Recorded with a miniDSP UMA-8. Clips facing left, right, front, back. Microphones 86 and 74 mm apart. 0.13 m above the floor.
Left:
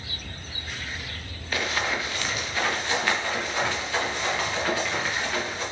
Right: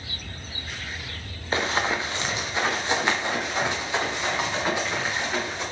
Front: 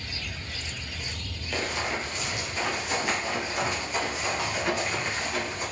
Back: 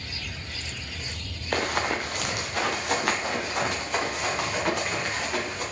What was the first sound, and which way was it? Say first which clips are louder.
Running footsteps: right 3 dB, back 4 dB; 150° right.